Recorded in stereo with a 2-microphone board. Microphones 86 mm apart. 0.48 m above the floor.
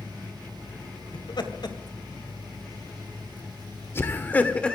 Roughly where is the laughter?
Left.